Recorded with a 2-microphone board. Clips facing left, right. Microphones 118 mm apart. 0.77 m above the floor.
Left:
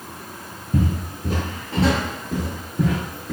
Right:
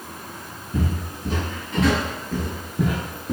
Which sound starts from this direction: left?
Footsteps, at 0.7 s.